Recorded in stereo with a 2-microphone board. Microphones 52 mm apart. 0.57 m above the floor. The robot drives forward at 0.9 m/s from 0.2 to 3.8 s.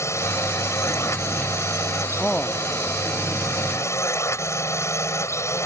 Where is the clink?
No clink in this recording.